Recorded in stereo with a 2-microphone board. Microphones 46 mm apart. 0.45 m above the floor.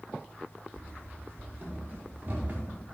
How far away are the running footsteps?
About 6 m.